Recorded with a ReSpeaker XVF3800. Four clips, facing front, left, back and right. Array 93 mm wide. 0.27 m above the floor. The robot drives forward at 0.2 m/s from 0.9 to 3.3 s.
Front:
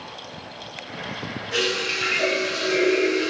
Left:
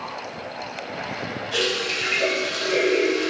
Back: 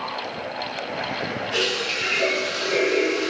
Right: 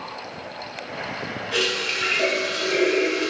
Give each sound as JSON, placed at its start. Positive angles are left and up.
{"t": 1.5, "sound": "a running tap", "azimuth_deg": -80, "distance_m": 1.1}